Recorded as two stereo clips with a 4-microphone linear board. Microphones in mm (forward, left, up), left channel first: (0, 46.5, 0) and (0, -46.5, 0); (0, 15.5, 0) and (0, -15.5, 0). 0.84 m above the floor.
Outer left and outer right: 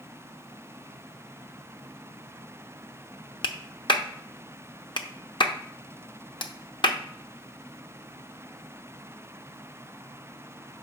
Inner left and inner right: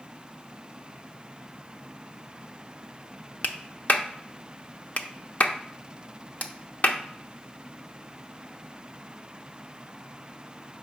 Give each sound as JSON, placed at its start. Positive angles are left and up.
{"t": 3.4, "sound": "a clap", "side_deg": 55, "distance_m": 0.6}